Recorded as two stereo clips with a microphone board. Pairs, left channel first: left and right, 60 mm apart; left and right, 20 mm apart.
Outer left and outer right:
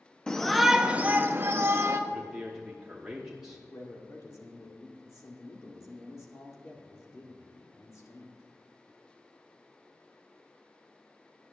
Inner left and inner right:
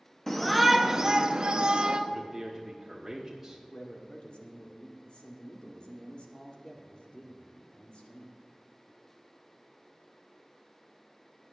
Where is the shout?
15° left (ahead or behind), 0.6 m; by 2.0 s 50° right (ahead or behind), 0.9 m.